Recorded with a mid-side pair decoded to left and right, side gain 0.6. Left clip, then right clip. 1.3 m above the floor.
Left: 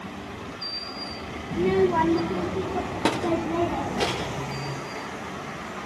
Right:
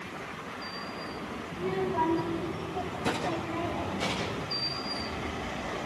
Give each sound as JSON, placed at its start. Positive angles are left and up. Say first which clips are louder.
{"t": 1.5, "sound": "a child speaking", "louder": "left 9 dB", "azimuth_deg": 50, "distance_m": 1.0}